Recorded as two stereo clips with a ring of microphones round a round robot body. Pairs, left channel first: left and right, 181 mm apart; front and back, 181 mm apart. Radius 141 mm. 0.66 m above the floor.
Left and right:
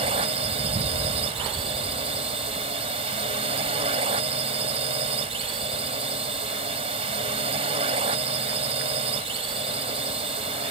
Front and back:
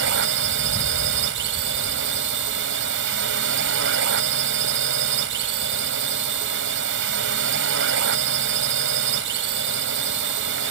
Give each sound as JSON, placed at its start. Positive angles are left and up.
{"t": 0.0, "sound": "a drone", "azimuth_deg": -155}